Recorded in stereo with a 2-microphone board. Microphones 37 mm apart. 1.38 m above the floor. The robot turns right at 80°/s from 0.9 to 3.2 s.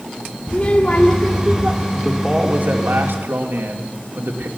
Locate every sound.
0.5 s a child speaking: 150° left, 2 m; by 1.8 s 135° right, 2 m
1.9 s a man speaking: straight behind, 3 m; by 4.5 s 80° right, 3 m